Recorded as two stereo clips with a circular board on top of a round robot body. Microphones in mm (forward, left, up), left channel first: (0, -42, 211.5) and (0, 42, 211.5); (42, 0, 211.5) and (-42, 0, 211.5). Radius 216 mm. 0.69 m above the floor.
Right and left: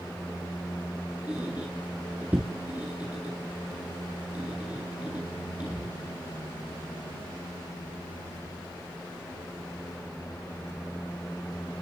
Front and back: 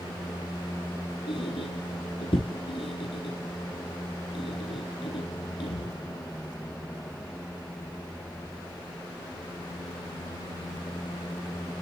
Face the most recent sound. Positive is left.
turn(degrees=15)